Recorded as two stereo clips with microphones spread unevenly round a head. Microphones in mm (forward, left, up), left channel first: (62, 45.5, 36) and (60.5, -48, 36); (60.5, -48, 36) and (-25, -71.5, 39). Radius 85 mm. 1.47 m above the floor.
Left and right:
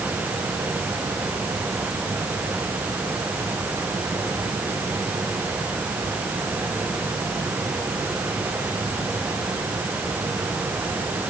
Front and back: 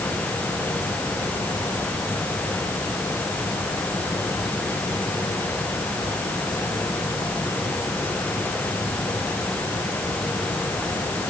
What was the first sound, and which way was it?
Only background noise.